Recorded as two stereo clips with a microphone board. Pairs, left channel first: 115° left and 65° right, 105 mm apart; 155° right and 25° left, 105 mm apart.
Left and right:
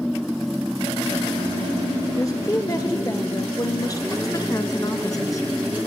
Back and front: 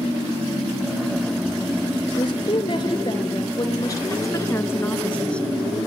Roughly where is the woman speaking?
Behind.